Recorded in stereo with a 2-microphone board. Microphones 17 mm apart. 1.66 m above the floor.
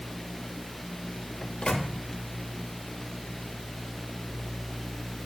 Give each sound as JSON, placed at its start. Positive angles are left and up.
{"t": 1.4, "sound": "a microwave", "side_deg": 70, "distance_m": 1.1}